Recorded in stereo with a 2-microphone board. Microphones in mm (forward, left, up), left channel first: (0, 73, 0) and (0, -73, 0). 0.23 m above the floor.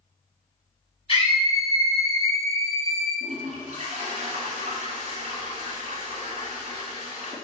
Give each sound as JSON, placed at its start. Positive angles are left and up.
{"t": 1.1, "sound": "a scream", "side_deg": 40, "distance_m": 2.0}
{"t": 3.2, "sound": "a toilet flushing", "side_deg": -50, "distance_m": 1.8}